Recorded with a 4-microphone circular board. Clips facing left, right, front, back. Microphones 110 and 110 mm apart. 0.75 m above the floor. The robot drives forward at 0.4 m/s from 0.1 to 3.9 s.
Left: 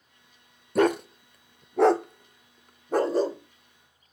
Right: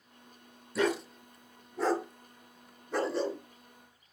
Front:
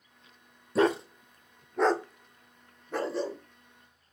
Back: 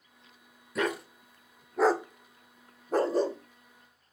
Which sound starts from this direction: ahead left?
A dog barking, at 0.8 s.